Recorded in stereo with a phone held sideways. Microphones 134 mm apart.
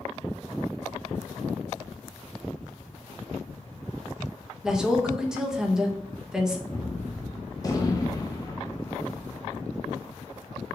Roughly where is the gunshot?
Left.